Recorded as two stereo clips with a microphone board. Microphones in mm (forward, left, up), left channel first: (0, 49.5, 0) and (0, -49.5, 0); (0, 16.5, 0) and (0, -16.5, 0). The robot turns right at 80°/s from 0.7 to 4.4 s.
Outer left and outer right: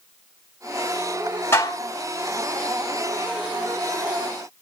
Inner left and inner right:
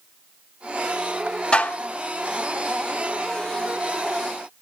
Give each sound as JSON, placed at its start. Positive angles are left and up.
{"t": 1.5, "sound": "dishes clattering", "azimuth_deg": 25, "distance_m": 1.7}